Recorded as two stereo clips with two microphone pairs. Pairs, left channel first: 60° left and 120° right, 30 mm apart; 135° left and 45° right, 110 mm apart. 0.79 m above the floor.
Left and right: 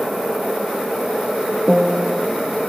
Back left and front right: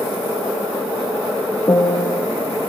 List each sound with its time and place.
1.7 s a piano: 160° left, 0.9 m